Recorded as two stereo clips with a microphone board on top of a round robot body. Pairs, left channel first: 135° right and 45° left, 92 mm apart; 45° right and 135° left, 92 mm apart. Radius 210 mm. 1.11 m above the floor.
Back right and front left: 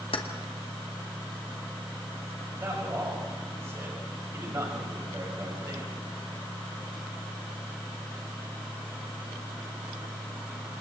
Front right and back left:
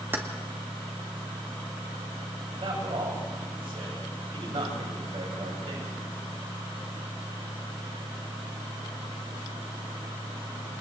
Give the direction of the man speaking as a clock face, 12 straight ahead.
8 o'clock.